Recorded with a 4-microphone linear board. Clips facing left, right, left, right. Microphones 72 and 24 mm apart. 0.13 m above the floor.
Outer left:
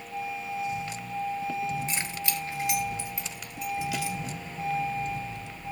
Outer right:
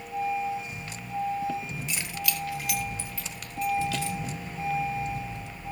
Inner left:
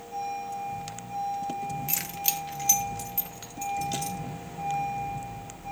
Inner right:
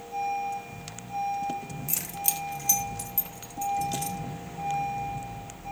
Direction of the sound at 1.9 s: 35° left (ahead or behind).